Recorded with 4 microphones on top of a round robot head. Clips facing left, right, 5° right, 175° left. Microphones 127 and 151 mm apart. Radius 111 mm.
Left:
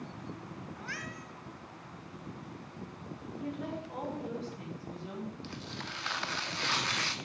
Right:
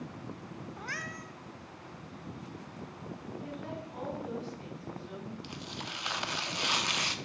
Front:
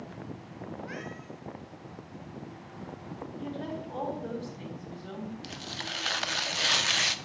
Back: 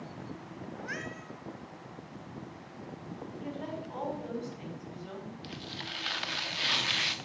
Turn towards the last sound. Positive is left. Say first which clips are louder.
# even, front 2 dB
turn(degrees=-20)